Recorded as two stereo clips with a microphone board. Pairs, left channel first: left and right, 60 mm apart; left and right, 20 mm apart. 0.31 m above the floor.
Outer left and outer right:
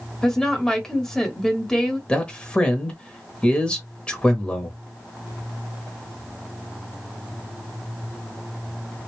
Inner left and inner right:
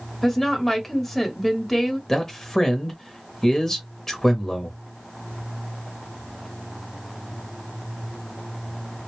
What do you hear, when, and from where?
0.2 s a woman speaking: 10° left (ahead or behind), 1.0 m
2.1 s a man speaking: 20° left (ahead or behind), 0.9 m